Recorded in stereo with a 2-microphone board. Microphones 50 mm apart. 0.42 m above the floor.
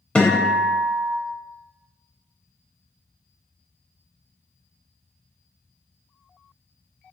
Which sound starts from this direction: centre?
A guitar, at 0.1 s.